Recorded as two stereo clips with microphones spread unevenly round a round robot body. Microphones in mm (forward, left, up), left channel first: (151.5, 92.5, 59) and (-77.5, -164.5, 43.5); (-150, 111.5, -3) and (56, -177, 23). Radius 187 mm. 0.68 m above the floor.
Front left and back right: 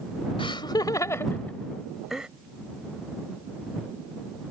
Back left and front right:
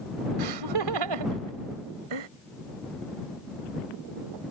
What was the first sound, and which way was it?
Laughter, 25° right.